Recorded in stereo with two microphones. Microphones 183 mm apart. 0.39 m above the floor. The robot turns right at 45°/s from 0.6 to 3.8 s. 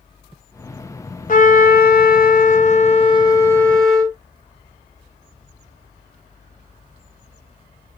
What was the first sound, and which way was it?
A trumpet, 65° left.